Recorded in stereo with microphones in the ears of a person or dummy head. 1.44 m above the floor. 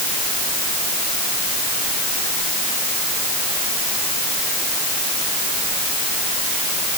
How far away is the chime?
I don't hear a chime.